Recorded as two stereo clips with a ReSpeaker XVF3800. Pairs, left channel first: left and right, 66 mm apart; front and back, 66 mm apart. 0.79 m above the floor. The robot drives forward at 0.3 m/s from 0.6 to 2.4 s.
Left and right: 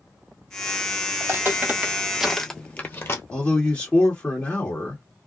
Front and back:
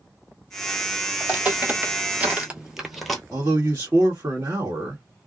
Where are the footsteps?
120° right, 1.2 m; by 3.2 s 80° left, 0.9 m.